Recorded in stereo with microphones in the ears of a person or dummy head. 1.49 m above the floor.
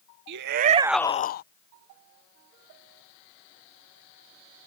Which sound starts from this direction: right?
A shout, at 0.3 s.